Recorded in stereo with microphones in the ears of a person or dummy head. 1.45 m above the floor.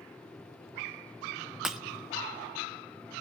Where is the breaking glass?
5° right (ahead or behind), 0.7 m.